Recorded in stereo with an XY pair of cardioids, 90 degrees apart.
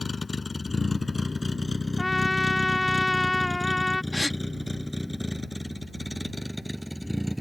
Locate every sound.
0.0 s a vehicle: 25° left; by 7.4 s 10° right
2.0 s a trumpet: 10° left
4.1 s a gasp: 5° left